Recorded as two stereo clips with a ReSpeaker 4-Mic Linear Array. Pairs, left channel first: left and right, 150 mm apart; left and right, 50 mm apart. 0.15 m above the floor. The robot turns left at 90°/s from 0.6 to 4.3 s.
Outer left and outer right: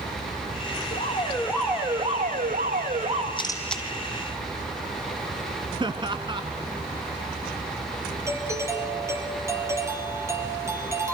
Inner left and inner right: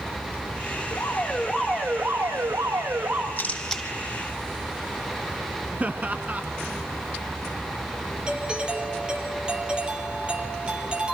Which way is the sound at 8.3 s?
20° right (ahead or behind).